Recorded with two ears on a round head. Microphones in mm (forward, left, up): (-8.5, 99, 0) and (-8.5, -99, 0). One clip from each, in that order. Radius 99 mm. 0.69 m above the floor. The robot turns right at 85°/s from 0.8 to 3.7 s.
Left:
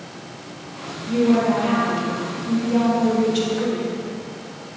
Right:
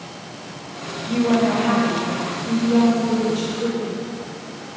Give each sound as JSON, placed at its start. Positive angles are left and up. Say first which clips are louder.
{"t": 1.1, "sound": "a woman speaking", "louder": "left 1 dB", "azimuth_deg": -150, "distance_m": 3.5}